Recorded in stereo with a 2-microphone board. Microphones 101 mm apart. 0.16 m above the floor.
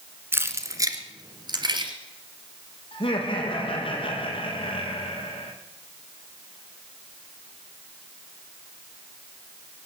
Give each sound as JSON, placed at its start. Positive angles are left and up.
{"t": 0.3, "sound": "keys jangling", "side_deg": -25, "distance_m": 1.4}
{"t": 2.9, "sound": "laughter", "side_deg": 75, "distance_m": 4.5}